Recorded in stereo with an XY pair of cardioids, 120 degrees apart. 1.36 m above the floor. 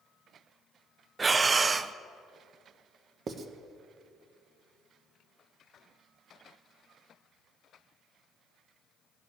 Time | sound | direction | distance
1.2 | breathing | 25° right | 0.6 m
3.3 | writing | 40° right | 1.2 m